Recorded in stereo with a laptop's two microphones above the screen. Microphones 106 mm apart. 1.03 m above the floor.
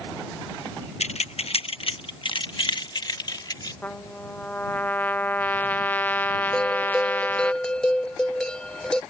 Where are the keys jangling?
85° left; by 3.7 s 40° left (ahead or behind).